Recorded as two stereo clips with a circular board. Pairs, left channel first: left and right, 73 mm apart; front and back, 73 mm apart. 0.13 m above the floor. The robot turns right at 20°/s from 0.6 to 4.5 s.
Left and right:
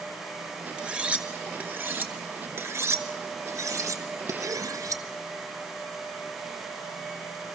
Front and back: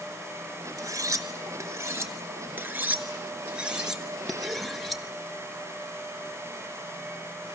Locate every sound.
0.8 s cutlery clinking: 165° right, 1.0 m; by 5.0 s 90° right, 1.0 m